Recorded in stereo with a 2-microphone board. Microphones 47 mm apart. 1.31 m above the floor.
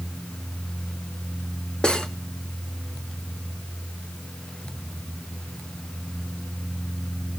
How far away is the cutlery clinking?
About 1.1 m.